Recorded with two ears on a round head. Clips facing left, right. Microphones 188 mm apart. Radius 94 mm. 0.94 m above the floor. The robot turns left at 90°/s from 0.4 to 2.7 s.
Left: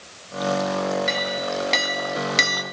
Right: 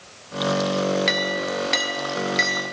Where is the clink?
105° right, 0.9 m; by 2.6 s 115° left, 0.9 m.